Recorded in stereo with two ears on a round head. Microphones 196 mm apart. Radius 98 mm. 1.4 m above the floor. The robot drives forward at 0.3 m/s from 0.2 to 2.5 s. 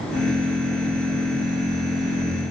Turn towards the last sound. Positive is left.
No sound to turn to.